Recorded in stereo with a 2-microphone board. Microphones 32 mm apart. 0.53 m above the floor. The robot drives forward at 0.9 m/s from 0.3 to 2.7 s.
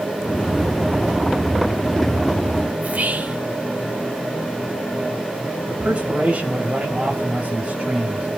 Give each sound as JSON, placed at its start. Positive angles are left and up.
{"t": 2.8, "sound": "whispering", "side_deg": -60, "distance_m": 1.7}
{"t": 5.7, "sound": "a man speaking", "side_deg": -60, "distance_m": 2.5}